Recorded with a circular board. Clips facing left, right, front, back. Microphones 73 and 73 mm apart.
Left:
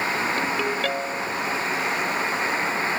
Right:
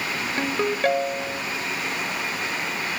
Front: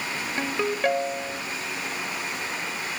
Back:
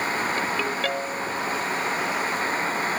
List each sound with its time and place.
0.4 s a ringtone: 55° right, 1.0 m